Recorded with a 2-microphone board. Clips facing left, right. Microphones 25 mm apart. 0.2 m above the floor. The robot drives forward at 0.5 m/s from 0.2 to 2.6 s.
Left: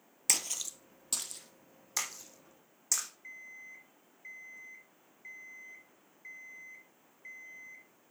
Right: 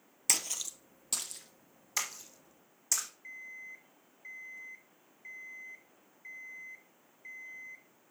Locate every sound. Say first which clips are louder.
0.3 s a splash: even; centre (ahead or behind), 0.7 m
3.2 s an alarm clock: right 2 dB; 5° left (ahead or behind), 1.2 m